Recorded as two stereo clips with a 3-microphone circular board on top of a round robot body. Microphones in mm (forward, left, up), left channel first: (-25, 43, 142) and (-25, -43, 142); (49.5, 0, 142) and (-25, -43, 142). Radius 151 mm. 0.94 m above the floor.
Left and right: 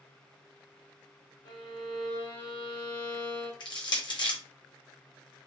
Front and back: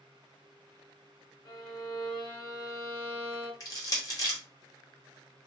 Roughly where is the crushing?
Left.